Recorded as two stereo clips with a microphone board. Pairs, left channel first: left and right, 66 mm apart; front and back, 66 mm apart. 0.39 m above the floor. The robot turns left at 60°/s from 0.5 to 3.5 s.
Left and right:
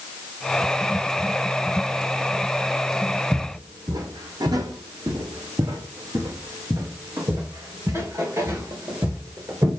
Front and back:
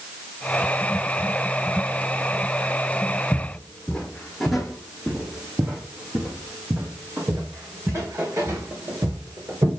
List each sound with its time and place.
3.3 s footsteps: 50° right, 1.4 m; by 9.7 s 135° right, 4 m